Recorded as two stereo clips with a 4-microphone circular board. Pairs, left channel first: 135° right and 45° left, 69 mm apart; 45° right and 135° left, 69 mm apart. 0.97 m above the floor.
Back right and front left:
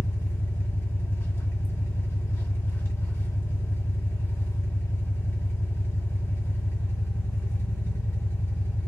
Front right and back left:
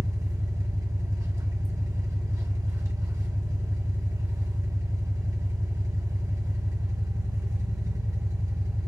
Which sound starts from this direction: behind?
An engine running, at 0.0 s.